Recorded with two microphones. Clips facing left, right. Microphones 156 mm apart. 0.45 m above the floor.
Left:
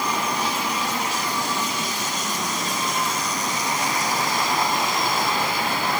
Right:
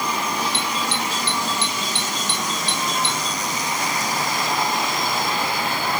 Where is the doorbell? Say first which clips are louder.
Even; 85° right.